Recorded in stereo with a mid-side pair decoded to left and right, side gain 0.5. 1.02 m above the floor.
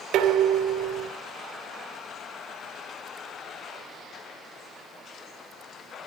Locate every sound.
0.1 s dishes clattering: 70° right, 2.5 m